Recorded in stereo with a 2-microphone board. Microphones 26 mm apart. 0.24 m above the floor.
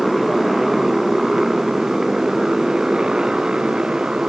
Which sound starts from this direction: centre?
A motorcycle, at 0.0 s.